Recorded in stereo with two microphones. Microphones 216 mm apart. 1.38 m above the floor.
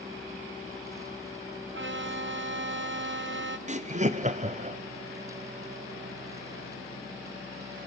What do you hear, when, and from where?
1.7 s a violin: 55° right (ahead or behind), 0.6 m
3.7 s laughter: 30° right (ahead or behind), 0.7 m